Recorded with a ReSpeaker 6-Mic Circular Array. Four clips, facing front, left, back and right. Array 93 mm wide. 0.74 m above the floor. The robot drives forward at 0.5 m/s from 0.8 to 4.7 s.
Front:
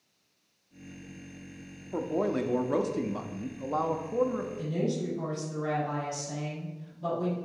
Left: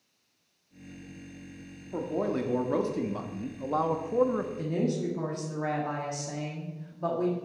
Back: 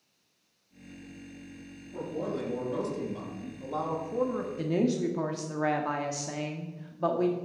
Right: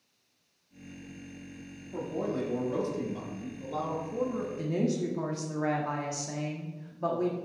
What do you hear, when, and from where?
1.9 s a man speaking: 30° left, 1.5 m; by 4.5 s 95° left, 0.9 m
4.6 s a woman speaking: 175° right, 1.4 m